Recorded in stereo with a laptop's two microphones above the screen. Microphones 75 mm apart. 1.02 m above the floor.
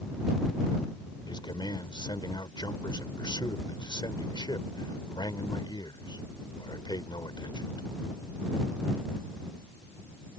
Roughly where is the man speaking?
Left.